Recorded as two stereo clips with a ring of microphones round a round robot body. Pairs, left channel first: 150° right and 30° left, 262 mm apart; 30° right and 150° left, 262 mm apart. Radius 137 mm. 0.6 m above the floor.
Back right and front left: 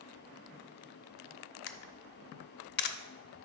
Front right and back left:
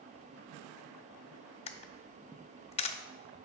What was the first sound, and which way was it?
A camera shutter, 100° right.